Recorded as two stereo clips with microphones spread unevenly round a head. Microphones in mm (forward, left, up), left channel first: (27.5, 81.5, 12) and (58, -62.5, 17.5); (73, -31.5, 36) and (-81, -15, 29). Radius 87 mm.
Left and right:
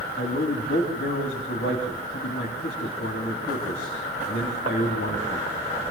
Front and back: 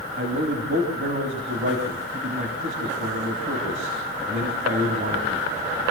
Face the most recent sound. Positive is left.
turn(degrees=140)